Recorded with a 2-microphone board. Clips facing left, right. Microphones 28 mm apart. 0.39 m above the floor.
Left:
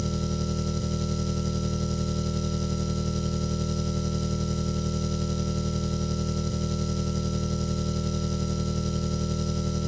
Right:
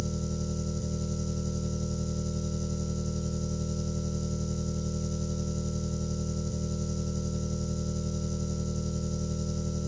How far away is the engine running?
About 0.8 m.